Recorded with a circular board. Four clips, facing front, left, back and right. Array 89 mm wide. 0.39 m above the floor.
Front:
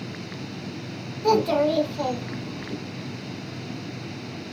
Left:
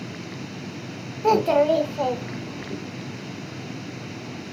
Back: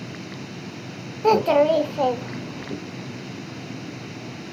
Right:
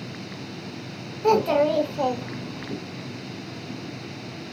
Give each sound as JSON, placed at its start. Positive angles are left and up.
{"t": 1.2, "sound": "a child speaking", "azimuth_deg": 175, "distance_m": 0.6}